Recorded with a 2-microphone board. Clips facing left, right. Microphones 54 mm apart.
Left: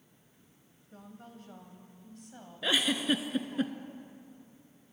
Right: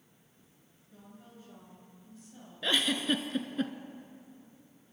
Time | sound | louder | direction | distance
0.9 | a woman speaking | left 3 dB | 60° left (ahead or behind) | 2.5 m
2.6 | a giggle | left 1 dB | 5° left (ahead or behind) | 0.8 m